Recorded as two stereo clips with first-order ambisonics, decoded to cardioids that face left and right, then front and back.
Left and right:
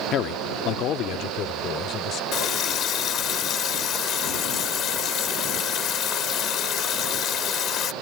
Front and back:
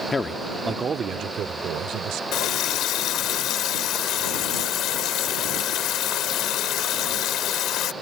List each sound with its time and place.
0.1 s a man speaking: 65° left; by 2.2 s 140° left
2.3 s a running tap: 40° left